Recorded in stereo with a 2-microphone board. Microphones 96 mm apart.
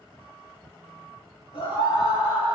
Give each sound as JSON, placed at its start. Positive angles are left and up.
{"t": 1.5, "sound": "a scream", "side_deg": 75, "distance_m": 6.0}